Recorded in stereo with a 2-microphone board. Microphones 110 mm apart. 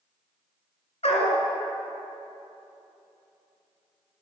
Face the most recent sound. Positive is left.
turn(degrees=65)  # may be behind; listen again after turning